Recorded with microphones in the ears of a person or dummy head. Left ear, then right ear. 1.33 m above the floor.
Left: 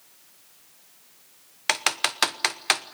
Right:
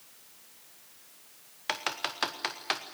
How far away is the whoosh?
I don't hear a whoosh.